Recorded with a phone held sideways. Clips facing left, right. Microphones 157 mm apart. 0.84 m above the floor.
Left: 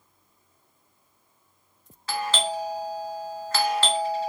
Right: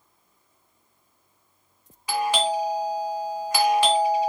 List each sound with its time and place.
2.1 s a doorbell: 15° right (ahead or behind), 0.8 m